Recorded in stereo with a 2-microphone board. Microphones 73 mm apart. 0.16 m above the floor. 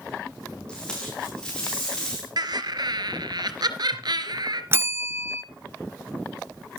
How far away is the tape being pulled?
About 6.5 m.